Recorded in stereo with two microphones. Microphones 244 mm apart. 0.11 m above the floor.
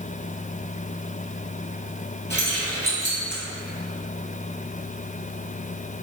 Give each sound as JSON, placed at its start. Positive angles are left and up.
{"t": 2.3, "sound": "keys jangling", "side_deg": 45, "distance_m": 1.4}